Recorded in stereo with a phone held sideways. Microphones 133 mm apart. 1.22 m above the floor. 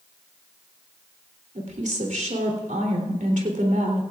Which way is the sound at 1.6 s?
75° right (ahead or behind).